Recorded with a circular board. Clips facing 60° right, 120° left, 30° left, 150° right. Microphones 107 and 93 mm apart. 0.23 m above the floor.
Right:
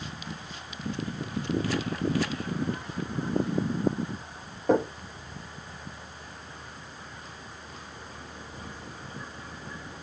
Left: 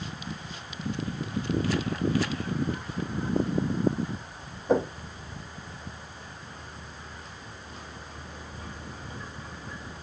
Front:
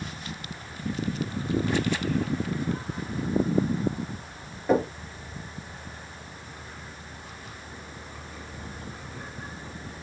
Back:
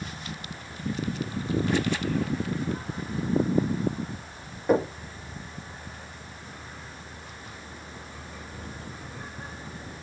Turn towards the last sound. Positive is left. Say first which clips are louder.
# right 1 dB, even
turn(degrees=-70)